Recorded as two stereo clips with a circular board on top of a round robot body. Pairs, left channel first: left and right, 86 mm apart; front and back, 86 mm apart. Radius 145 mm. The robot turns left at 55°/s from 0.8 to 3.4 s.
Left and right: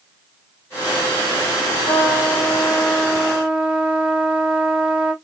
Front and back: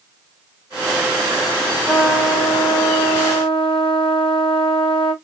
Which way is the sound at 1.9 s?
75° left.